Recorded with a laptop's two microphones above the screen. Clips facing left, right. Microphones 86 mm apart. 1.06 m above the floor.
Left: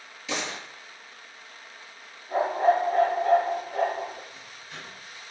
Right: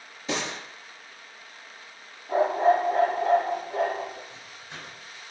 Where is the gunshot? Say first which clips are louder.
Right 2 dB; 35° right (ahead or behind), 5.5 m.